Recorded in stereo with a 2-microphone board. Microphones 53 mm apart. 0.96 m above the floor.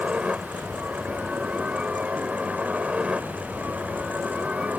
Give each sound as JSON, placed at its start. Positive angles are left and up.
{"t": 0.0, "sound": "a helicopter", "side_deg": -20}